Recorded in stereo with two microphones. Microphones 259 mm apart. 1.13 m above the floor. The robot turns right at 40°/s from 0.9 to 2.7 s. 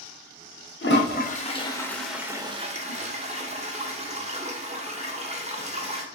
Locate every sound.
0.8 s a toilet flushing: 45° left (ahead or behind), 0.8 m; by 6.0 s 25° right (ahead or behind), 0.8 m